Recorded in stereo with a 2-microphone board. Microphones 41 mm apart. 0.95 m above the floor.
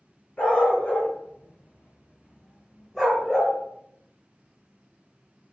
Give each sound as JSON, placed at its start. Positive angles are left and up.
{"t": 0.4, "sound": "a dog barking", "side_deg": 35, "distance_m": 1.2}